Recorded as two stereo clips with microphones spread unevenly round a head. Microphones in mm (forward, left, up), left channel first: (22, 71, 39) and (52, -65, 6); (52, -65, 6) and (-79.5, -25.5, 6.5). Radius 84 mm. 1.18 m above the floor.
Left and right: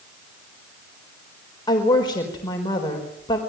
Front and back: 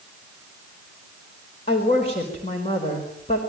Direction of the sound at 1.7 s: 40° left.